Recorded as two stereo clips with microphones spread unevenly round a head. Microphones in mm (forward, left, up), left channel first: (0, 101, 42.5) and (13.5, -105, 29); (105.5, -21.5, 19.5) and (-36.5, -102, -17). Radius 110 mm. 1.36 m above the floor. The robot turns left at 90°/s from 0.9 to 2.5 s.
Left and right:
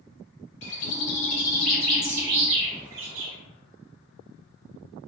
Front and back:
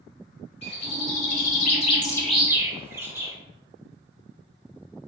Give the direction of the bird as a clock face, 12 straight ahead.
9 o'clock.